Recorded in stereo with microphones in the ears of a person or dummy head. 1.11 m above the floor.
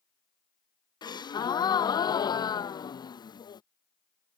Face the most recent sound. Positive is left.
turn(degrees=30)  # may be behind; listen again after turning